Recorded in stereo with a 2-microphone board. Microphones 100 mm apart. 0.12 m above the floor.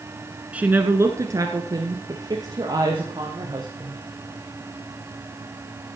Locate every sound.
0.5 s a woman speaking: 15° right (ahead or behind), 1.1 m; by 4.0 s 40° right (ahead or behind), 4 m